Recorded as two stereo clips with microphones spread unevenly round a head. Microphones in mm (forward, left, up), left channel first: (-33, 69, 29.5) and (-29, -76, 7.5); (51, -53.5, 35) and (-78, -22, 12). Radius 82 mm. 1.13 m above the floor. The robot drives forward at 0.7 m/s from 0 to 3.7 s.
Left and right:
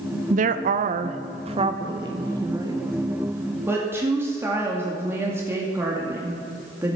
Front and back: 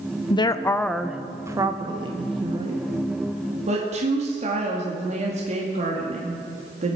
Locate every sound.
0.3 s a woman speaking: 70° right, 0.8 m; by 7.0 s 160° right, 2 m